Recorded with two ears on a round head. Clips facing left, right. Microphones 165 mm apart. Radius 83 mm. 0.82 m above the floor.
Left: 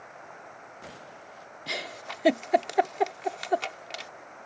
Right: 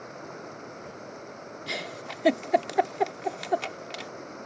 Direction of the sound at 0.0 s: 50° right (ahead or behind).